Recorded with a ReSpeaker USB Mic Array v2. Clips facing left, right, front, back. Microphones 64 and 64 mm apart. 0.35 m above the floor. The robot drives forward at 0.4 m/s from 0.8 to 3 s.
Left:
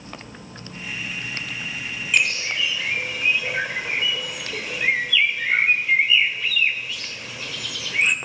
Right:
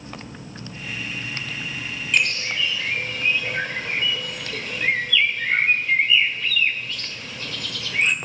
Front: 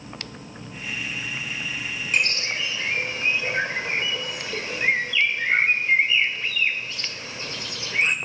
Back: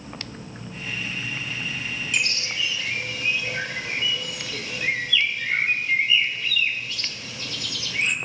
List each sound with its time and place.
2.1 s a bird: 10° left, 1.7 m; by 8.2 s 15° left, 1.5 m